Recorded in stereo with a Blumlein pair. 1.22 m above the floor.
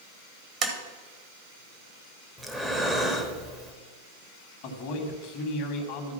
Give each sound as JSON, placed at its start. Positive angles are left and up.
{"t": 0.6, "sound": "tapping", "azimuth_deg": -30, "distance_m": 1.6}
{"t": 2.4, "sound": "breathing", "azimuth_deg": -5, "distance_m": 1.4}
{"t": 4.6, "sound": "a man speaking", "azimuth_deg": 45, "distance_m": 1.8}